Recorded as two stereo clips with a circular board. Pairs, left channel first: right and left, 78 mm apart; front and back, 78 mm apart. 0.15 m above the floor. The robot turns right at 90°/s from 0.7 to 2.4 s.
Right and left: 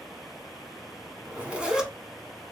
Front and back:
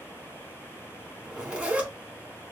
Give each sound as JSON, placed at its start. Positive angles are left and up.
{"t": 1.2, "sound": "a zipper", "azimuth_deg": 105, "distance_m": 1.2}